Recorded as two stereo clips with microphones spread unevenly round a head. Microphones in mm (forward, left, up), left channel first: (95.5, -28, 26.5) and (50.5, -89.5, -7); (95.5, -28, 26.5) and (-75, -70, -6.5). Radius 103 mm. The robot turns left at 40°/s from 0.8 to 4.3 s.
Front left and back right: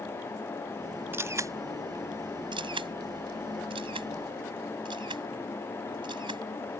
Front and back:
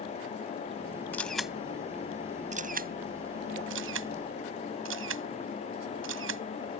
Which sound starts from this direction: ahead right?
A camera shutter, at 1.1 s.